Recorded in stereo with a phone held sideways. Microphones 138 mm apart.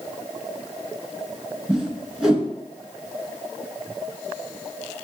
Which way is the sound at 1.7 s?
5° right (ahead or behind).